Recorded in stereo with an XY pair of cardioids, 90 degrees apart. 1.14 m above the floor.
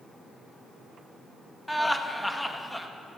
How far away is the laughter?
About 1.1 m.